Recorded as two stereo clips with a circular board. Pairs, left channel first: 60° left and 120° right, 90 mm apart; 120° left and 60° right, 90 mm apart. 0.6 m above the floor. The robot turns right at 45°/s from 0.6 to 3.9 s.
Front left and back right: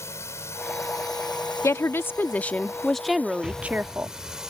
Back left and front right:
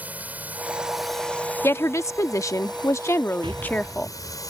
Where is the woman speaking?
85° left; by 4.1 s 175° right.